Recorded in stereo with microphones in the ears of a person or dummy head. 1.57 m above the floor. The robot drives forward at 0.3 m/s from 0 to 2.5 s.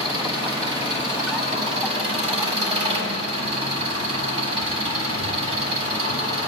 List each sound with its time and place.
0.0 s an engine running: 30° right (ahead or behind), 6.5 m; by 6.5 s 35° right (ahead or behind), 6 m